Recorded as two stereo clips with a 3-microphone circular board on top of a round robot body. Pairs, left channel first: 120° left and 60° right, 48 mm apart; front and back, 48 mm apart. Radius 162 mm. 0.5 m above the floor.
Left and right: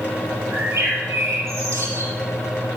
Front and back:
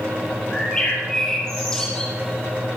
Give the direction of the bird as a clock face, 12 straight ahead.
3 o'clock.